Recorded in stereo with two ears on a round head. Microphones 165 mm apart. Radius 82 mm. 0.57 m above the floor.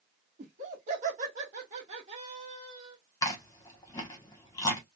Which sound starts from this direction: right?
Laughter, at 0.4 s.